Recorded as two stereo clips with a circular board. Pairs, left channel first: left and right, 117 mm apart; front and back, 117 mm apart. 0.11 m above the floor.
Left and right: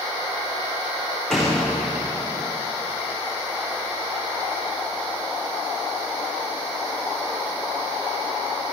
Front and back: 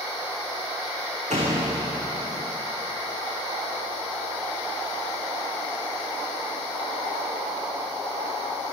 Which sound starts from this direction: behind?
A door slam, at 1.3 s.